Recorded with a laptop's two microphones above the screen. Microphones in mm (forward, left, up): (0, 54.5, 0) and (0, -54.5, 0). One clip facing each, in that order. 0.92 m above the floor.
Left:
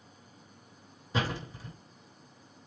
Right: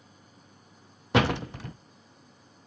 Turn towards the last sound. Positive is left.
turn(degrees=-75)  # may be behind; listen again after turning